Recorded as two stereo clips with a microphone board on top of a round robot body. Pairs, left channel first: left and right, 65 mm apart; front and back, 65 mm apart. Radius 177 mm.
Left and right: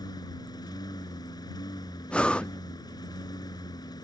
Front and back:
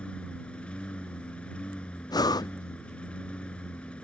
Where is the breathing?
15° left.